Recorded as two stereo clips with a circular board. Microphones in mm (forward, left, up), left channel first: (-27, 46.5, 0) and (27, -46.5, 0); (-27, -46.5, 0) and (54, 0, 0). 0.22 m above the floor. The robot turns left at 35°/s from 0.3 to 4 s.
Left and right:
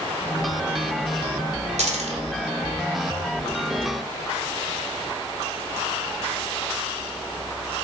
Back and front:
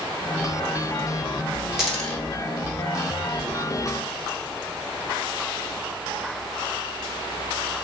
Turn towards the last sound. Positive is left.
turn(degrees=-135)